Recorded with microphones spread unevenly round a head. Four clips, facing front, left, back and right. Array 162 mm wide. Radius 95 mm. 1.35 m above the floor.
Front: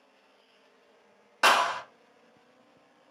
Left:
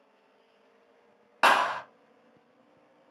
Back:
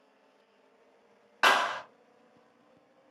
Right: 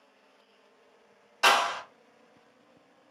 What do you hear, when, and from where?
1.4 s a clap: 70° left, 1.0 m